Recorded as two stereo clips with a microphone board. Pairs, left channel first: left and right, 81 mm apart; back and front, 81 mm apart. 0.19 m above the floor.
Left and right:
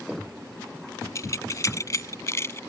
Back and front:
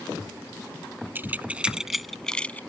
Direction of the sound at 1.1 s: 55° left.